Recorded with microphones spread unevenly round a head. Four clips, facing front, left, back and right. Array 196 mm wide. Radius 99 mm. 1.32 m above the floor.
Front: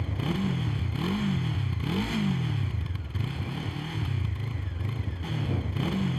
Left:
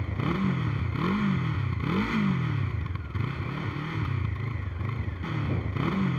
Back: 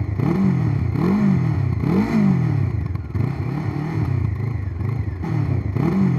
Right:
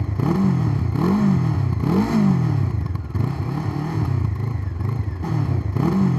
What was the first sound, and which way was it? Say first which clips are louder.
A motorcycle: right 8 dB, back 10 dB; 140° right.